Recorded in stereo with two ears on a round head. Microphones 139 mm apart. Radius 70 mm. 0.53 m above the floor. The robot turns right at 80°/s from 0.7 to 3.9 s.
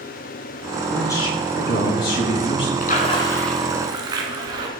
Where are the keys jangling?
I don't hear keys jangling.